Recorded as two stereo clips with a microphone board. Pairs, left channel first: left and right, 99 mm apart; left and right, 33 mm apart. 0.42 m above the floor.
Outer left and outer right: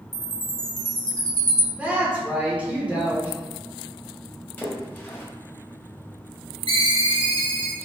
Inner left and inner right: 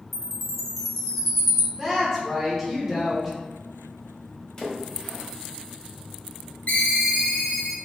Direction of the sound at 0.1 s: 5° left (ahead or behind).